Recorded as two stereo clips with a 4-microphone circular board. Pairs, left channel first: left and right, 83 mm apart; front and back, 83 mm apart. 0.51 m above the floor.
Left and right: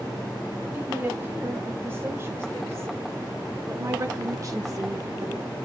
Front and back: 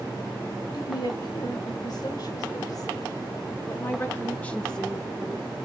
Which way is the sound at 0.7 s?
25° right.